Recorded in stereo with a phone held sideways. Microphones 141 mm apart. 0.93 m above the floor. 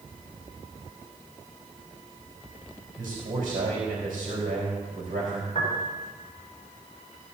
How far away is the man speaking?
About 4 m.